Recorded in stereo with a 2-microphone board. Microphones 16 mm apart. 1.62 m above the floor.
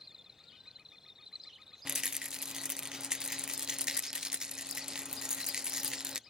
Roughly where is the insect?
Right.